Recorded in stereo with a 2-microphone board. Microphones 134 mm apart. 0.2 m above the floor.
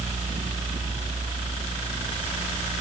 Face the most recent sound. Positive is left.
No sound to turn to.